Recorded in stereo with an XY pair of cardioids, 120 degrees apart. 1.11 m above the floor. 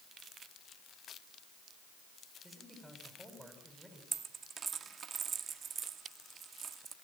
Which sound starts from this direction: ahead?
A man speaking, at 2.4 s.